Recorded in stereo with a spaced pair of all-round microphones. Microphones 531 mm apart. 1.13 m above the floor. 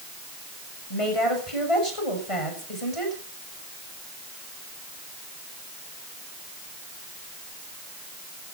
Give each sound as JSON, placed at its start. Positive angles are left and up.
{"t": 0.9, "sound": "a woman speaking", "side_deg": 75, "distance_m": 6.5}